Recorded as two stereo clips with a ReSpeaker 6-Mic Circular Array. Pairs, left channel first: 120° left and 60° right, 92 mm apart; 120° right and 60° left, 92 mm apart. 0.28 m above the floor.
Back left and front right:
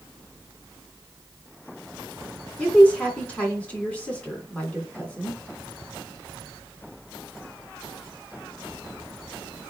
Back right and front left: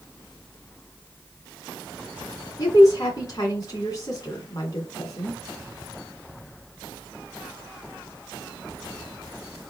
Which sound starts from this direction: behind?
A woman speaking, at 2.6 s.